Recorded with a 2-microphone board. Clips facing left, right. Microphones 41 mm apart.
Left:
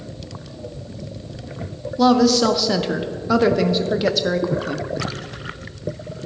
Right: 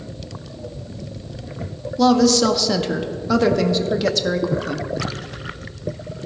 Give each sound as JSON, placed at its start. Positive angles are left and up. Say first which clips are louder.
{"t": 2.0, "sound": "a woman speaking", "louder": "even", "side_deg": 10, "distance_m": 0.5}